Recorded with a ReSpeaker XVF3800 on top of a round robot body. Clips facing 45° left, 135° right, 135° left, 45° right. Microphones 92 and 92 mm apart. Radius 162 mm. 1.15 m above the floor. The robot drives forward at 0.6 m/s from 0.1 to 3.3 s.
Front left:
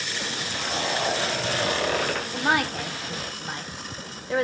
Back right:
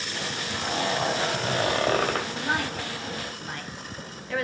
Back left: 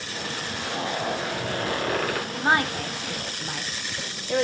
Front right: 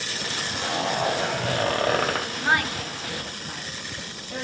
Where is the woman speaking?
60° left, 0.7 m; by 4.4 s 115° left, 0.6 m.